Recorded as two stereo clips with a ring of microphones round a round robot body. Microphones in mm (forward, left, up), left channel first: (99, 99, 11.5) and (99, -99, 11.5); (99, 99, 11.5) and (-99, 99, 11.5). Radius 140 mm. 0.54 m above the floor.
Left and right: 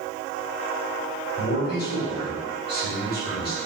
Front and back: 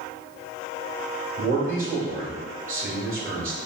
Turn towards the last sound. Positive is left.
turn(degrees=140)